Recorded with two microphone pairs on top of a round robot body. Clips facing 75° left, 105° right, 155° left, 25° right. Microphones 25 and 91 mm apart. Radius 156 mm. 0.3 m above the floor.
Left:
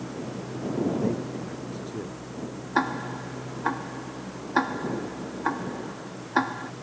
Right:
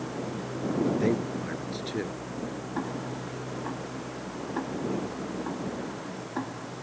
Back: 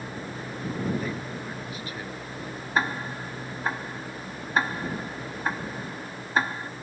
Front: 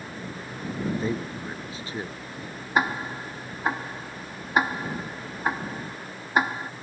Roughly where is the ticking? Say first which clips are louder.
Left 9 dB, front 2 dB; ahead left.